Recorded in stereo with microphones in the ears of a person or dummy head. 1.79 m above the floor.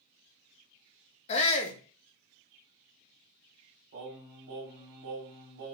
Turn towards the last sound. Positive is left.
turn(degrees=-55)  # may be behind; listen again after turning